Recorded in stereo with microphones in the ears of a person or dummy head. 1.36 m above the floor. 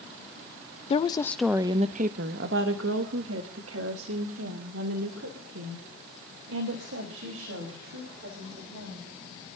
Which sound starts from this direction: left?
A woman speaking, at 0.9 s.